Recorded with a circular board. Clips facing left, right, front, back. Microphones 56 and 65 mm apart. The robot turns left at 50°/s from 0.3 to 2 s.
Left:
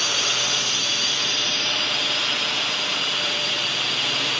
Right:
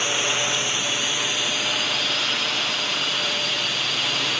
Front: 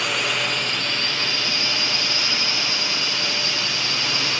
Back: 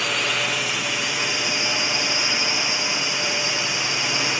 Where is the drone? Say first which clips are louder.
Right 1 dB, even; 95° right; by 4.4 s straight behind.